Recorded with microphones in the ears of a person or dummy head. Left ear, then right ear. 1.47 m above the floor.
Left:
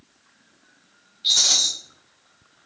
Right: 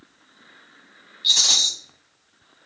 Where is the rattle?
10° right (ahead or behind), 1.1 m.